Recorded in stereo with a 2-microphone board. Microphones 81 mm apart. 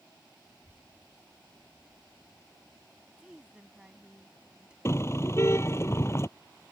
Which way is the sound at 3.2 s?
10° right (ahead or behind).